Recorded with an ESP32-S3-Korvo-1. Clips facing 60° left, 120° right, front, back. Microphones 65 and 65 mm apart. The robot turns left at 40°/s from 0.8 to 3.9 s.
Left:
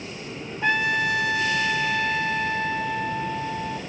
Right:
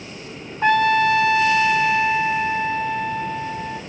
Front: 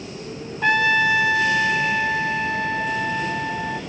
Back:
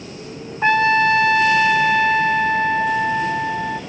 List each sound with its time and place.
0.6 s a trumpet: 130° right, 0.8 m; by 3.8 s 110° left, 0.8 m